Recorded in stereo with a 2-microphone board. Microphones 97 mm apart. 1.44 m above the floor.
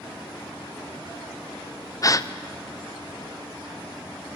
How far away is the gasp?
About 0.5 m.